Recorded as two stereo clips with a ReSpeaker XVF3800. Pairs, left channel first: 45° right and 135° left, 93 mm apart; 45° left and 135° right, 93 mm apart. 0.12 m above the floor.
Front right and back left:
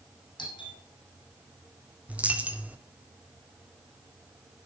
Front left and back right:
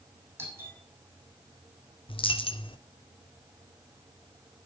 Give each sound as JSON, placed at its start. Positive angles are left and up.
{"t": 0.4, "sound": "a doorbell", "azimuth_deg": -75, "distance_m": 7.0}
{"t": 2.1, "sound": "a dropped coin", "azimuth_deg": 60, "distance_m": 1.8}